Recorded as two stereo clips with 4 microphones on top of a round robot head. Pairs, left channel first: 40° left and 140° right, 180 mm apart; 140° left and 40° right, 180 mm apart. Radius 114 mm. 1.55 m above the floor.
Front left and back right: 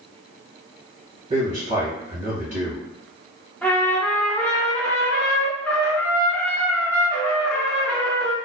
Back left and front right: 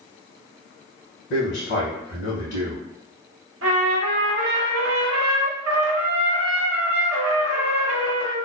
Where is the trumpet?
40° right, 0.5 m.